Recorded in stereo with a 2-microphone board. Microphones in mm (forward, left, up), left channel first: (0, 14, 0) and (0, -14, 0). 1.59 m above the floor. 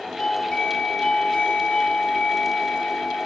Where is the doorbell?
15° left (ahead or behind), 5.5 m.